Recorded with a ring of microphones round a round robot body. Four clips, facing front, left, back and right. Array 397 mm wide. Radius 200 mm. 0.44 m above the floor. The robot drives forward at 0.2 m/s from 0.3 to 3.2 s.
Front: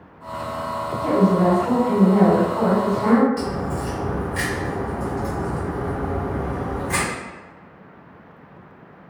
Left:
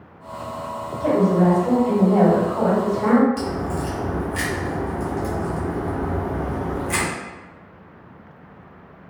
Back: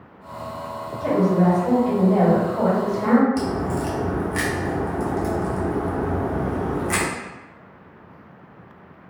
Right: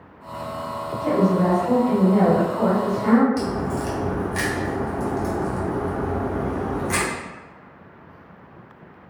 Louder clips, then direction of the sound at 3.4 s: Right 1 dB, back 2 dB; 165° right.